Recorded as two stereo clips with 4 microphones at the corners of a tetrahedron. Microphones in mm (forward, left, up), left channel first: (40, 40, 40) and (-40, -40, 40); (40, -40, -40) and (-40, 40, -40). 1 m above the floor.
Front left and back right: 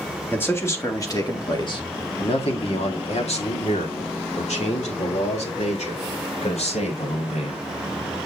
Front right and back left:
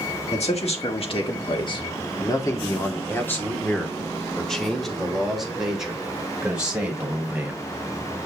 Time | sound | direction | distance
0.3 | a man speaking | 25° right | 2 m